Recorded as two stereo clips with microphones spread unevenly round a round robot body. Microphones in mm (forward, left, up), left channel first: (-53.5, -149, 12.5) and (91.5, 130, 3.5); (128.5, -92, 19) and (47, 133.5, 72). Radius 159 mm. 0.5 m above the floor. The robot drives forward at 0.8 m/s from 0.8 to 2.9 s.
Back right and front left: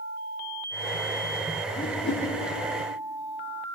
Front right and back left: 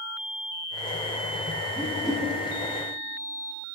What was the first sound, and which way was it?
A whoosh, 120° right.